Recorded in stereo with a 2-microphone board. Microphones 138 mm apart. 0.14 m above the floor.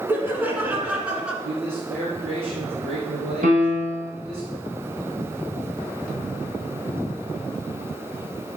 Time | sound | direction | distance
0.1 | laughter | 15° right (ahead or behind) | 1.5 m
1.4 | a man speaking | 50° right (ahead or behind) | 3.5 m
3.4 | a piano | 75° right (ahead or behind) | 3 m